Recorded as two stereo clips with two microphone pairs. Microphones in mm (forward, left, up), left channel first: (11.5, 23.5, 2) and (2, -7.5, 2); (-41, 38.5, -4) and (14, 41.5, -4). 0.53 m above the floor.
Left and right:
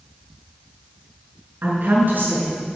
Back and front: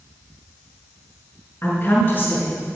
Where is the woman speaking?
125° right, 6 m.